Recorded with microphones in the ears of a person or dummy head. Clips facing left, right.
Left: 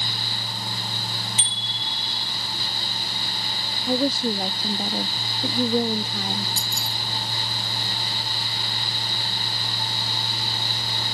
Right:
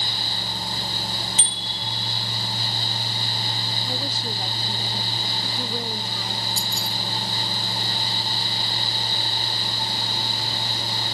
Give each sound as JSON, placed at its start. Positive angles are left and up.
{"t": 1.4, "sound": "a bicycle bell", "side_deg": -35}
{"t": 3.9, "sound": "a woman speaking", "side_deg": 50}
{"t": 6.6, "sound": "keys jangling", "side_deg": 50}